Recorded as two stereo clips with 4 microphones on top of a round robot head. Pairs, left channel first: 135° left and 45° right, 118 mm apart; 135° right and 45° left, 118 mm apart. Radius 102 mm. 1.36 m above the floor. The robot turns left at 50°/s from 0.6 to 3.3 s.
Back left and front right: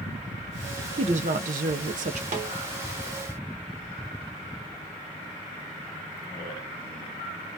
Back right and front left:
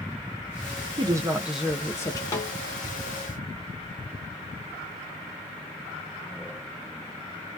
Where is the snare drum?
65° right, 0.8 m; by 2.5 s 75° right, 0.8 m.